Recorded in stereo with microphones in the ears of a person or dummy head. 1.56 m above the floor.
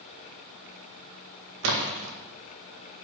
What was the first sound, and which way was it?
A splash, 70° right (ahead or behind).